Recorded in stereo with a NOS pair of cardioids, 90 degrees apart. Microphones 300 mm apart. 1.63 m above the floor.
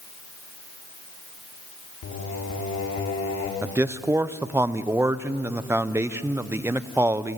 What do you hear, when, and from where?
2.0 s singing: 55° left, 3 m
3.6 s a man speaking: 10° right, 0.7 m